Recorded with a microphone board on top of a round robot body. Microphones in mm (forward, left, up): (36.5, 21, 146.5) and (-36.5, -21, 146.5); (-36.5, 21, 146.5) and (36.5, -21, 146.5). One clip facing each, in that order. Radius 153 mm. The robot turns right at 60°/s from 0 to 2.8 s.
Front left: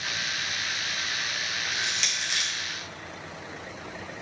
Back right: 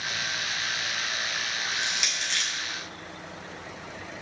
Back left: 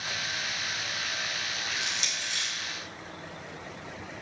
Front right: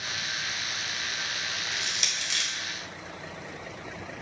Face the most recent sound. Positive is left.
turn(degrees=-25)